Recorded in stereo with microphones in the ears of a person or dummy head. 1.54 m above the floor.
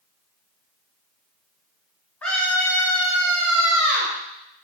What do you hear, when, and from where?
2.2 s a scream: 5° left (ahead or behind), 1.4 m; by 4.2 s 60° right (ahead or behind), 2 m